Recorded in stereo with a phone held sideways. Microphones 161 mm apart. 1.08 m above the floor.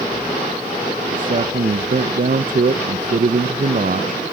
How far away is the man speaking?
About 0.5 m.